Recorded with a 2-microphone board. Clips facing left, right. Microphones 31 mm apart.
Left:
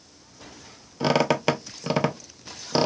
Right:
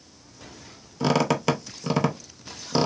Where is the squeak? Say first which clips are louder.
Left 1 dB; 15° left (ahead or behind), 0.6 m.